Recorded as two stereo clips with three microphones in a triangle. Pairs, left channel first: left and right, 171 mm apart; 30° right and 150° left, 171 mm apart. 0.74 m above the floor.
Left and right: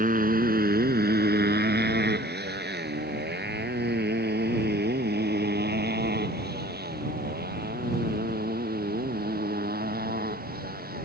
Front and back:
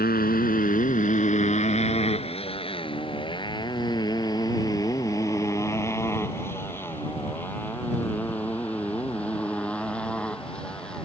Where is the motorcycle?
55° right; by 11.1 s 115° right.